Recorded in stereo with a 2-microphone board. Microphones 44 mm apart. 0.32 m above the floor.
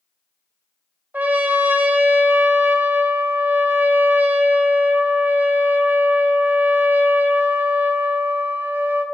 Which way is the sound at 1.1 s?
40° right (ahead or behind).